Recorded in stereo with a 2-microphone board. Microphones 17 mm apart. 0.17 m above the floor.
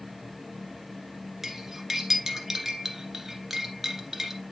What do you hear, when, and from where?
1.4 s cutlery clinking: 20° right (ahead or behind), 1.7 m